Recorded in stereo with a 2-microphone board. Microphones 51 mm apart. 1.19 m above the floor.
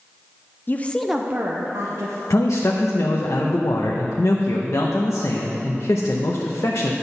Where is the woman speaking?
40° left (ahead or behind), 0.6 m; by 2.2 s 60° right (ahead or behind), 1.3 m.